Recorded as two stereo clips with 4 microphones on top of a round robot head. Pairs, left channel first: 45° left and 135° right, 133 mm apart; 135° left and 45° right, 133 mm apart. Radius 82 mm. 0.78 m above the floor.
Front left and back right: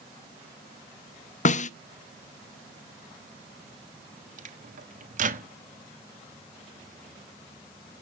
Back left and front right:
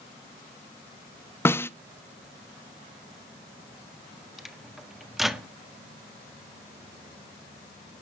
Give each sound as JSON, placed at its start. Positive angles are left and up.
{"t": 1.4, "sound": "a snare drum", "azimuth_deg": 65, "distance_m": 0.7}
{"t": 4.4, "sound": "a microwave", "azimuth_deg": -130, "distance_m": 1.4}